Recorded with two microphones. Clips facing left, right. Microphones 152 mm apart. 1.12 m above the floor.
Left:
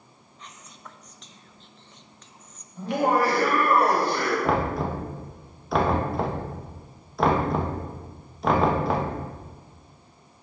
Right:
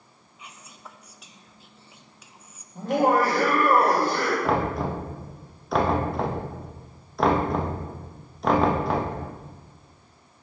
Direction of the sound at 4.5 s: Centre (ahead or behind).